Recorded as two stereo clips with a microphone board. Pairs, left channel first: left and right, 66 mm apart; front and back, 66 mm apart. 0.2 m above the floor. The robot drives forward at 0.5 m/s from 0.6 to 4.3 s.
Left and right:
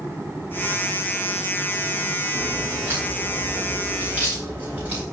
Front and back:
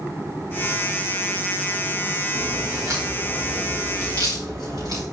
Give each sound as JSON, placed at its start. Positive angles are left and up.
{"t": 2.3, "sound": "a crack", "azimuth_deg": -150, "distance_m": 7.0}